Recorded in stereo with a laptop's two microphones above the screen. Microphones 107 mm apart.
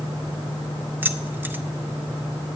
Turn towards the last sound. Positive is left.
turn(degrees=-20)  # may be behind; listen again after turning